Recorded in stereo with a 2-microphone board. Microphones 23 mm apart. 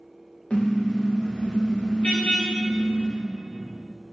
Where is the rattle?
I don't hear a rattle.